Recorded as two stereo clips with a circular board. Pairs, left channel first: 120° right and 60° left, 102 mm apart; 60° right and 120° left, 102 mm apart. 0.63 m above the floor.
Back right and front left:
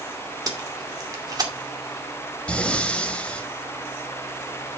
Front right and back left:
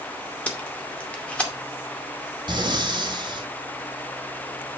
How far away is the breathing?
About 1.4 m.